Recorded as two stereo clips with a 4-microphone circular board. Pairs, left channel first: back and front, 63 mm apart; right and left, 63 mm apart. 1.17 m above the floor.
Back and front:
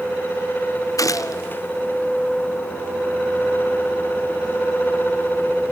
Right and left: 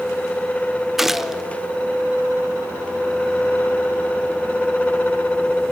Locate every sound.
1.0 s a gunshot: 175° left, 0.7 m